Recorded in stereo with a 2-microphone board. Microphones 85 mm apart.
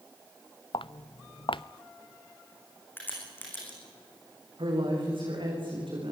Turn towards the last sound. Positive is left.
turn(degrees=-75)  # may be behind; listen again after turning